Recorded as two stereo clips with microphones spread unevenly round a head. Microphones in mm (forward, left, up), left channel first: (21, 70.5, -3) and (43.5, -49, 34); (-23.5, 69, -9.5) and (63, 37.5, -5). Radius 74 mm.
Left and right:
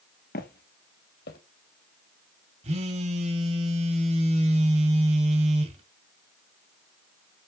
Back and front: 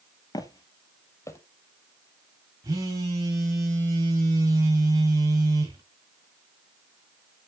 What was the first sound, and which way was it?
Footsteps, 125° left.